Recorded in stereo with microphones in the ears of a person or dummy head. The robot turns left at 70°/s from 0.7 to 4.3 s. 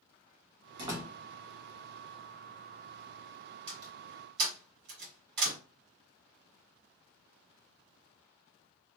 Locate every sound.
0.8 s a door slam: 25° right (ahead or behind), 1.3 m; by 1.1 s 5° right (ahead or behind), 1.3 m
3.7 s a door slam: 35° right (ahead or behind), 1.3 m; by 5.6 s 65° right (ahead or behind), 1.3 m